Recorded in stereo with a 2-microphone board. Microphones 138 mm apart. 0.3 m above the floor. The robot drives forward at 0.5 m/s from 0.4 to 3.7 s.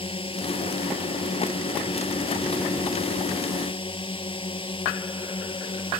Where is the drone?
40° left (ahead or behind).